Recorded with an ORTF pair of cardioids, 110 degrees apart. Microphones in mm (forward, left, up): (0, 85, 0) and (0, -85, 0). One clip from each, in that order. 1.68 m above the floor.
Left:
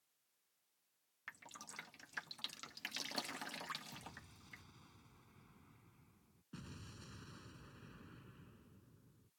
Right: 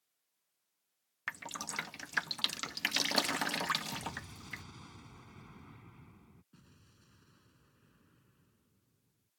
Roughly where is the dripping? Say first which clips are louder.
Right 13 dB; ahead right.